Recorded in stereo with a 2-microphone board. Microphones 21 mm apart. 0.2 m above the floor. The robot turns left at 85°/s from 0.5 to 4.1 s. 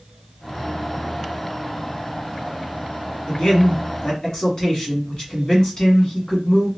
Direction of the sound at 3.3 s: 130° left.